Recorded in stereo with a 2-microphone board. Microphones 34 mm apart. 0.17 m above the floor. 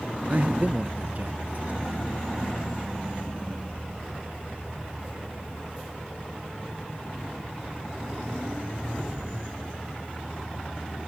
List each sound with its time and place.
0.3 s a man speaking: 50° right (ahead or behind)